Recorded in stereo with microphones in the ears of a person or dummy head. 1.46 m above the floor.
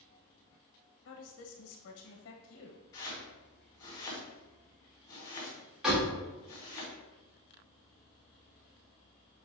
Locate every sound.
1.1 s a woman speaking: 65° left (ahead or behind), 1.1 m
2.9 s chopping: 20° left (ahead or behind), 3 m
5.8 s a door slam: 5° right (ahead or behind), 2.5 m